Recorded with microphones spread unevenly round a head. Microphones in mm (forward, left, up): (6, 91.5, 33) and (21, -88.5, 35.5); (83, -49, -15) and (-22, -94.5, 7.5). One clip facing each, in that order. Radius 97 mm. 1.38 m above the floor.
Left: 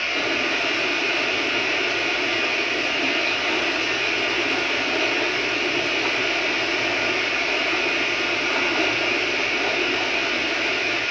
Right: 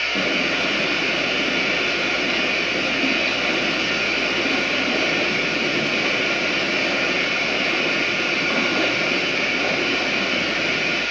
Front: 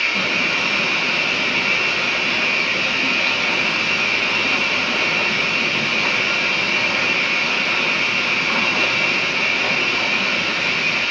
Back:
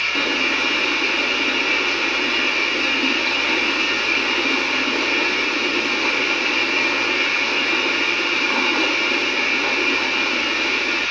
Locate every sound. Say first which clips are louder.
0.0 s running water: right 2 dB, back 1 dB; straight ahead, 9.5 m